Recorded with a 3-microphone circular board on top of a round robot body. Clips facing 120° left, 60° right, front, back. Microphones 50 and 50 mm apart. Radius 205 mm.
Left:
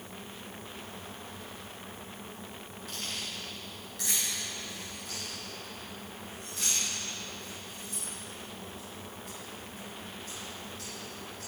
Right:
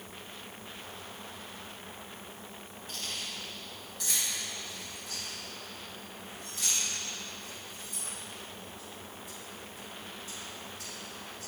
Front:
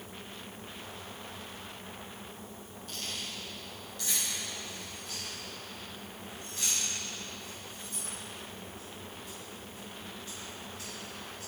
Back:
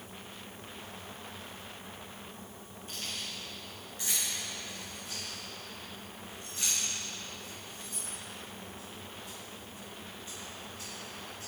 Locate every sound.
2.9 s keys jangling: 120° left, 5 m; by 11.5 s 115° left, 11 m